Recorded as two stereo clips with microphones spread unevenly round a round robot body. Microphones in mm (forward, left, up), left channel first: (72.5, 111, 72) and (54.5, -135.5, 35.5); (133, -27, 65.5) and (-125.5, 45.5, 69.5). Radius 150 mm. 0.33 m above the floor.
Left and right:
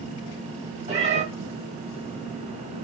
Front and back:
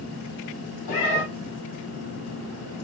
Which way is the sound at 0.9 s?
35° right.